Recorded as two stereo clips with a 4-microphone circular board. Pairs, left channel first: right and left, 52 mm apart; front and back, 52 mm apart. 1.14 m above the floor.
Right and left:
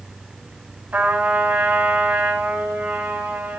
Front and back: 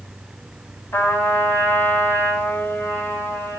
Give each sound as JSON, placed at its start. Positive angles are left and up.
{"t": 0.9, "sound": "a trumpet", "azimuth_deg": 40, "distance_m": 8.0}